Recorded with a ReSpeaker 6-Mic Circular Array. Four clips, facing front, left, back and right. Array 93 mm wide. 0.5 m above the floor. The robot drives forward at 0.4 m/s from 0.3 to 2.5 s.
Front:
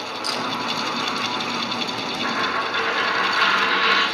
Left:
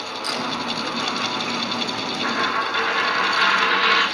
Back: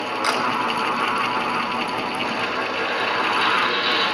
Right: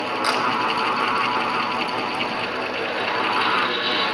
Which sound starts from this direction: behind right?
A camera shutter, at 0.2 s.